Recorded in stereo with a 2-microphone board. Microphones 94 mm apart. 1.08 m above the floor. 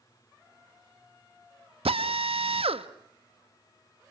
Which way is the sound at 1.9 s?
85° right.